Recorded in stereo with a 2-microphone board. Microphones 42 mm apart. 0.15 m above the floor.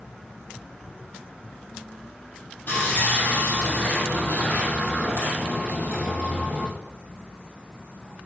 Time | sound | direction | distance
2.7 | sawing | 50° left (ahead or behind) | 3.5 m